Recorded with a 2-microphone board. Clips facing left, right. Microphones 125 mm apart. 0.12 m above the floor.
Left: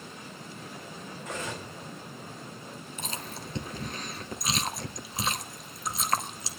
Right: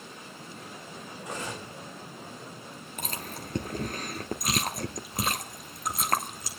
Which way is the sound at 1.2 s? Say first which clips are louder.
Even; 15° right (ahead or behind).